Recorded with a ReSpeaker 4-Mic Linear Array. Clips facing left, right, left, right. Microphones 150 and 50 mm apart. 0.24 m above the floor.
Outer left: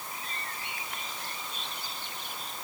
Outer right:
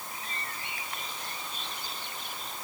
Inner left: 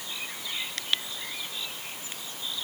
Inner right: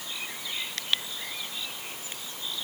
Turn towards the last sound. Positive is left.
No sound to turn to.